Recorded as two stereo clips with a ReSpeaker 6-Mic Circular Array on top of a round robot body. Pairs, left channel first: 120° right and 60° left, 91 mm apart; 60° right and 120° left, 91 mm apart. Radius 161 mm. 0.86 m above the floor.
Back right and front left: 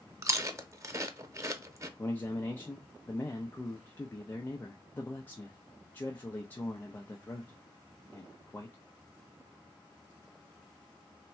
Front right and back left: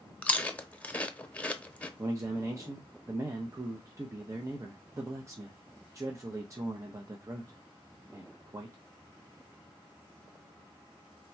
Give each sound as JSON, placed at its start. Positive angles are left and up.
{"t": 0.2, "sound": "chewing", "azimuth_deg": 10, "distance_m": 0.8}
{"t": 2.0, "sound": "a man speaking", "azimuth_deg": 175, "distance_m": 0.6}